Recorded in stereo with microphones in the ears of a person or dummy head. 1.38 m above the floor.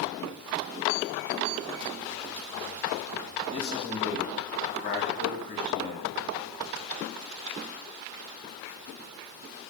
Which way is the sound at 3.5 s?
25° left (ahead or behind).